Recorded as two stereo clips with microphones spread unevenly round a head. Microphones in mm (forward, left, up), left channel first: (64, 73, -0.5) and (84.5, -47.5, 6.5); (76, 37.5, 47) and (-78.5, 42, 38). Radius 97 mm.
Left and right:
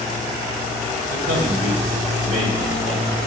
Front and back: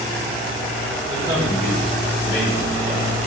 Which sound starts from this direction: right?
A man speaking, at 1.1 s.